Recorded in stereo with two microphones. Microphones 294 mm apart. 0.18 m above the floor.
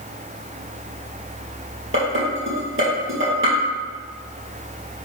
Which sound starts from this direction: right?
Dishes clattering, at 1.9 s.